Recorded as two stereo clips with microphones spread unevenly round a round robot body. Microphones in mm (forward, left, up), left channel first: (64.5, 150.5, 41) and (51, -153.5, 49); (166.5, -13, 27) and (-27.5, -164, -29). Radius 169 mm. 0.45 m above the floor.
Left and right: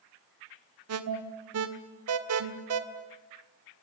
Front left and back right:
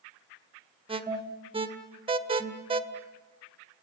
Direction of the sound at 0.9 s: 95° right.